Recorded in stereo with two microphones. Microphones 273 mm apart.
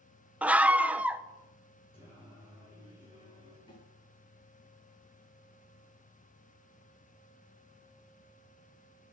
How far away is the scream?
About 1.0 m.